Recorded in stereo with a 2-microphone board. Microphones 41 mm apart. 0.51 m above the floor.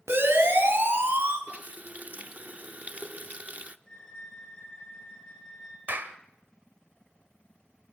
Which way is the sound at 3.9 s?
20° left (ahead or behind).